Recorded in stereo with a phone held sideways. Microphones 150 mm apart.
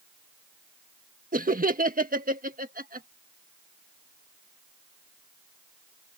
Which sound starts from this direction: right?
Laughter, at 1.3 s.